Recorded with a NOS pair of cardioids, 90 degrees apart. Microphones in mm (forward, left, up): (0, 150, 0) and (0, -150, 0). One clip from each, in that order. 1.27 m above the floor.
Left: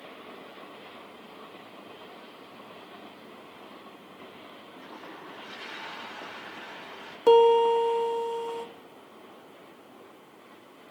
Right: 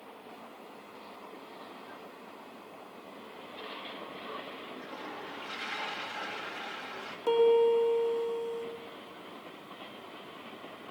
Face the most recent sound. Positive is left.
turn(degrees=50)